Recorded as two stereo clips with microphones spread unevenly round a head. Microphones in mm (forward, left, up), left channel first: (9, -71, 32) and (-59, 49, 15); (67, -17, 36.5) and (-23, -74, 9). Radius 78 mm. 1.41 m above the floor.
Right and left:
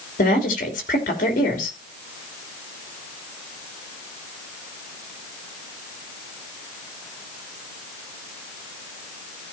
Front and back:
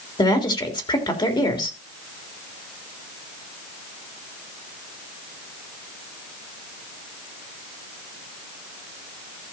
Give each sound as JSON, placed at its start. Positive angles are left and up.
{"t": 0.2, "sound": "a woman speaking", "azimuth_deg": -15, "distance_m": 3.5}